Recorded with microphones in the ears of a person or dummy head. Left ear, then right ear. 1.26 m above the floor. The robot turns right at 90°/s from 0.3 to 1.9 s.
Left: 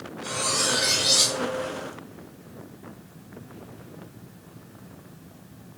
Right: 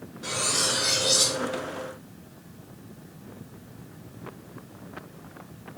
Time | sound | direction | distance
0.2 | cutlery clinking | 25° right | 1.1 m